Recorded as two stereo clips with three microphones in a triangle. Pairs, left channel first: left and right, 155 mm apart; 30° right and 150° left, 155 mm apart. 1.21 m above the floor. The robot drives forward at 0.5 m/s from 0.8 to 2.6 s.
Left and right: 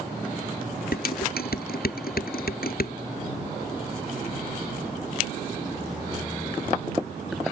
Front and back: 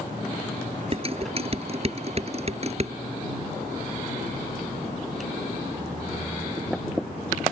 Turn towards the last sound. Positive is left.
turn(degrees=105)